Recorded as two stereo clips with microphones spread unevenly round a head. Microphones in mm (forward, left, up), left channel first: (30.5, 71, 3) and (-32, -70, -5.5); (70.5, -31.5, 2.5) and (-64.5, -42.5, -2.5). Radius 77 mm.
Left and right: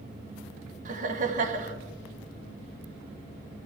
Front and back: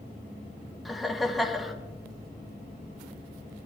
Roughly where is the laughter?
Right.